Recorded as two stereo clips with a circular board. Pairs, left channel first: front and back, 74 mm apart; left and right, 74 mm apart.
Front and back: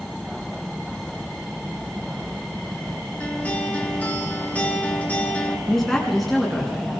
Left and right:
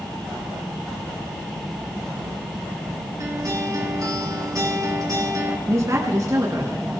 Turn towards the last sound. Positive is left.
turn(degrees=-85)